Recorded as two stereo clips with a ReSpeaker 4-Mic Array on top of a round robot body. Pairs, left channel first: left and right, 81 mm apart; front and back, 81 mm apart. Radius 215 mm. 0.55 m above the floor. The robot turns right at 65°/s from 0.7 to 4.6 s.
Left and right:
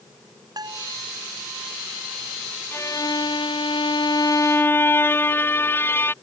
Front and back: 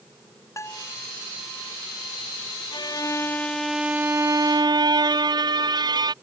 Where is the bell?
55° right; by 0.9 s 35° right.